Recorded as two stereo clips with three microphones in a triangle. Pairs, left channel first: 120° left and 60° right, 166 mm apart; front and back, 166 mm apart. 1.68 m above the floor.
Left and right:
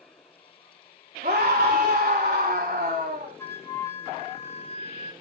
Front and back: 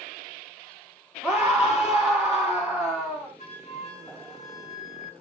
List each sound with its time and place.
1.2 s a scream: 95° right, 3.5 m
3.4 s a flute: 45° left, 2 m